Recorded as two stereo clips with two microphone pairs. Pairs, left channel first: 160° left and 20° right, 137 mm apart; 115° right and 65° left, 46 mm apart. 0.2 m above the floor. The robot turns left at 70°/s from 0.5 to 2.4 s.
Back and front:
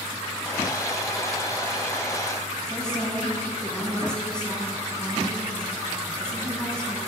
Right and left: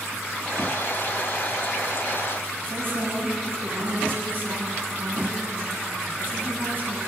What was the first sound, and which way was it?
A woman speaking, 80° left.